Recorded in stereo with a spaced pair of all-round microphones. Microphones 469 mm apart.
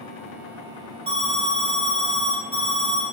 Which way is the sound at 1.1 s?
10° right (ahead or behind).